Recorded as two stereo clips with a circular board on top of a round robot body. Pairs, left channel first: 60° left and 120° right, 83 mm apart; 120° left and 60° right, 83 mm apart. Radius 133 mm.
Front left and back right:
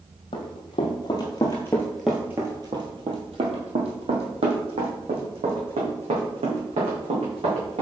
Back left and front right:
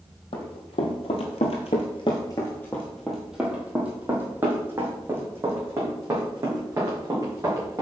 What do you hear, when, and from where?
0.3 s running footsteps: 90° left, 1.3 m; by 7.8 s 120° right, 3.5 m